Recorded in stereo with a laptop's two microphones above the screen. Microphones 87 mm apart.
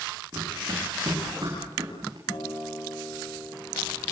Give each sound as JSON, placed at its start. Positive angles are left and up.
{"t": 0.3, "sound": "running footsteps", "side_deg": -45, "distance_m": 8.5}
{"t": 2.3, "sound": "a guitar", "side_deg": 75, "distance_m": 8.5}